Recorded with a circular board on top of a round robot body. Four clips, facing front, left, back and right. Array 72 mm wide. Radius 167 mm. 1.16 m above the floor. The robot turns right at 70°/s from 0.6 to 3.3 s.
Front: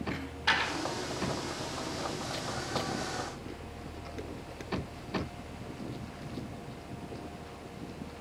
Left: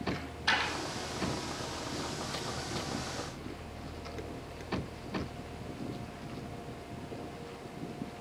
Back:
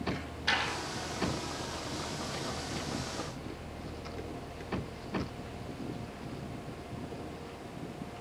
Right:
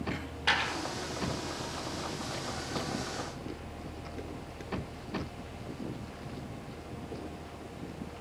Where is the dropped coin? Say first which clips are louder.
Right 2 dB, front 5 dB; 80° right, 2 m; by 0.7 s 70° right, 2 m.